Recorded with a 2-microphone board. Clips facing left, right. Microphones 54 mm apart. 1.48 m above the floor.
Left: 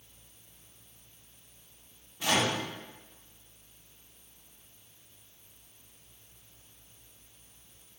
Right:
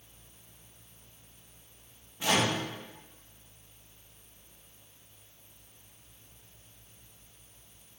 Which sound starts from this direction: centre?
A microwave, at 2.2 s.